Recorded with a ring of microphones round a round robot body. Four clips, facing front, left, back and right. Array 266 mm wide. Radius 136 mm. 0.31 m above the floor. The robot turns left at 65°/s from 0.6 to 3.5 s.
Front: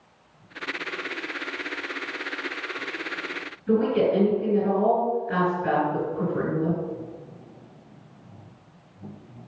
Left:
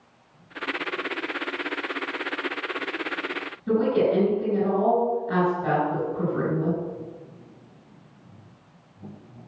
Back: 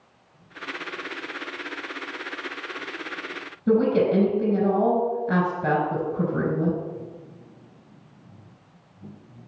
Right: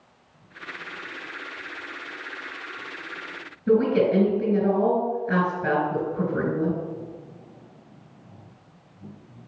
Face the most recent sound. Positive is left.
turn(degrees=-155)